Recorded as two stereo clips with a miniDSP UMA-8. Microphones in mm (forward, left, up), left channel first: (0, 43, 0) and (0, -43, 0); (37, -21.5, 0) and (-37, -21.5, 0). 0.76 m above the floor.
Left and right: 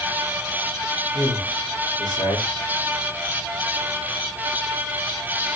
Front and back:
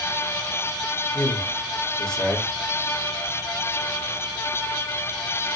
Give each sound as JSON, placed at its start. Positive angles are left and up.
{"t": 1.1, "sound": "a man speaking", "azimuth_deg": 75, "distance_m": 1.9}